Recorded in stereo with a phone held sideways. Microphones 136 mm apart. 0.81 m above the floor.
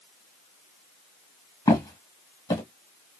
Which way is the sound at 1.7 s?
25° left (ahead or behind).